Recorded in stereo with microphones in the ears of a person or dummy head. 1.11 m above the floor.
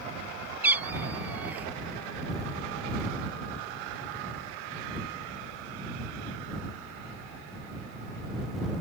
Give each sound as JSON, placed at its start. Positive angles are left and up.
{"t": 0.6, "sound": "a cat meowing", "side_deg": -10}